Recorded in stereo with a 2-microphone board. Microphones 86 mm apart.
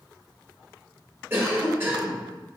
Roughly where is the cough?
Right.